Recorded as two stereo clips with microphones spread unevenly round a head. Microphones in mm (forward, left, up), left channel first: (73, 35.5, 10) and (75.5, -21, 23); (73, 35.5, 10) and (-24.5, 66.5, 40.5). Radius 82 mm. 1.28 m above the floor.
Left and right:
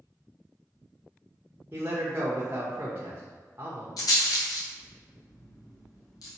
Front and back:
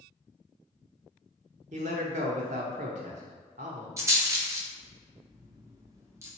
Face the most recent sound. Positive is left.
turn(degrees=100)